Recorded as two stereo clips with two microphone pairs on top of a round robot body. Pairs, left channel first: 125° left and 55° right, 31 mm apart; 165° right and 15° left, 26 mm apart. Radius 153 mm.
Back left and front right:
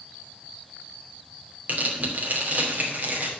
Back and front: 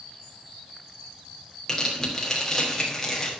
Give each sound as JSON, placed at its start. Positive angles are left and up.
{"t": 1.7, "sound": "tearing paper", "azimuth_deg": -90, "distance_m": 2.5}